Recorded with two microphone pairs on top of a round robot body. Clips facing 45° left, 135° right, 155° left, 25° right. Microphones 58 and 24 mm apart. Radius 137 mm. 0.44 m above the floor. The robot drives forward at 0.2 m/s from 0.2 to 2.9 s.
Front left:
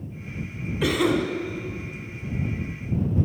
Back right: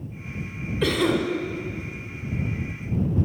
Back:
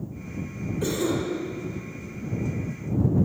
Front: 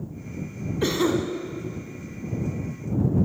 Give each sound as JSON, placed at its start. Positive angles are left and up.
{"t": 0.8, "sound": "a cough", "azimuth_deg": -40, "distance_m": 1.4}